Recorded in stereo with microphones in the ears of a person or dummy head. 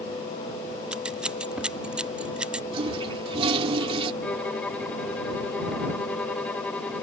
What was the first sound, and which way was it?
Scissors, 10° right (ahead or behind).